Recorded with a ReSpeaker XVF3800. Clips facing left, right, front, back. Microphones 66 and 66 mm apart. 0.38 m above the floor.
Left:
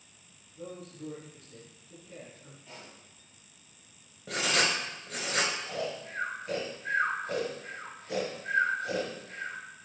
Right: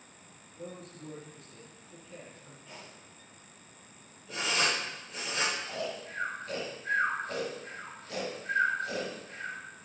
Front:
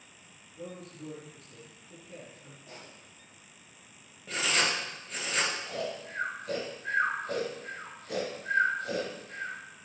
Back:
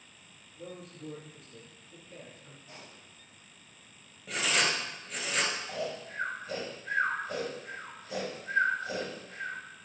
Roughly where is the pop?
Ahead.